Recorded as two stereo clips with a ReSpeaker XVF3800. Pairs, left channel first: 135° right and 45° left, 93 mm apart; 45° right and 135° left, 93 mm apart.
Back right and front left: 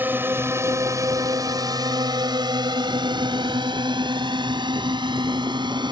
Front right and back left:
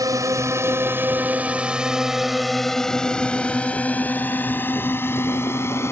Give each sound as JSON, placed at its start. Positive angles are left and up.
{"t": 0.0, "sound": "a drone", "azimuth_deg": 105}